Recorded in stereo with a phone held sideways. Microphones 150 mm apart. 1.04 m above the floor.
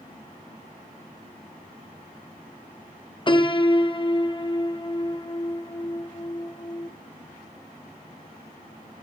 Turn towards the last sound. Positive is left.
turn(degrees=35)  # may be behind; listen again after turning